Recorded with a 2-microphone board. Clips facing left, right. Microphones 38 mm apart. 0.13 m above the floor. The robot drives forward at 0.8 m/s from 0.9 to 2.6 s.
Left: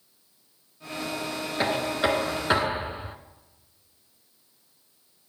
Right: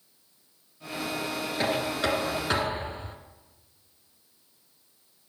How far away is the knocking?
About 1.3 m.